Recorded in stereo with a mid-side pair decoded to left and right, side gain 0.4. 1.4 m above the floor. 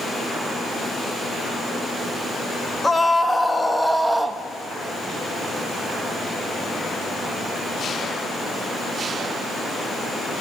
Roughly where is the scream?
Ahead.